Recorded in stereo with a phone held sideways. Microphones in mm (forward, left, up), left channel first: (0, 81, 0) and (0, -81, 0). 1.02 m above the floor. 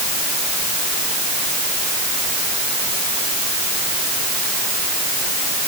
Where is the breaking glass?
I don't hear breaking glass.